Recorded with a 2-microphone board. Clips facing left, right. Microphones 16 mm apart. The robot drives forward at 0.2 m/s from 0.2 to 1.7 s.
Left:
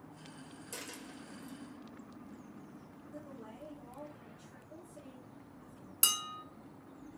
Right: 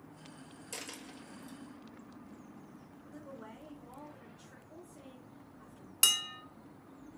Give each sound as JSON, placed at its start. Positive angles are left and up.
{"t": 0.7, "sound": "a dropped coin", "side_deg": -20, "distance_m": 1.8}
{"t": 3.1, "sound": "a woman speaking", "side_deg": -25, "distance_m": 3.0}
{"t": 6.0, "sound": "dishes clattering", "side_deg": -25, "distance_m": 1.0}